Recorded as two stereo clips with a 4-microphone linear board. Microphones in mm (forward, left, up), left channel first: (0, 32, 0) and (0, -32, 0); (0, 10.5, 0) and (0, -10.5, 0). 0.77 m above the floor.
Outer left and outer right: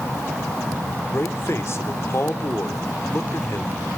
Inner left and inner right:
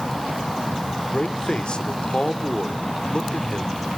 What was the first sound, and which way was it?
A man speaking, 45° left (ahead or behind).